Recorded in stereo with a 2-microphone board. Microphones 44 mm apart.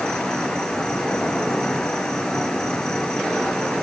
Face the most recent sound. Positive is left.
turn(degrees=15)  # may be behind; listen again after turning